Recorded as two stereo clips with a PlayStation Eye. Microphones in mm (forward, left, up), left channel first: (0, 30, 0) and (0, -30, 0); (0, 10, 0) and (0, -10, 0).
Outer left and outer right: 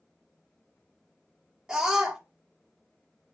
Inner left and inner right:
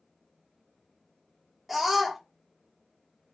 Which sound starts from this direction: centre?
A scream, at 1.7 s.